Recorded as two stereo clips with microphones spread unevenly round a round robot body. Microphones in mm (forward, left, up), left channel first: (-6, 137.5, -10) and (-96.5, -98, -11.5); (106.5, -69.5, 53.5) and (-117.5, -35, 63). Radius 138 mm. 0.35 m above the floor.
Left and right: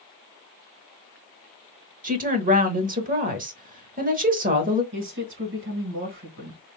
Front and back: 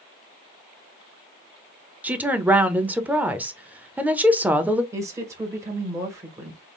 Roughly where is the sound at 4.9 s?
Behind right.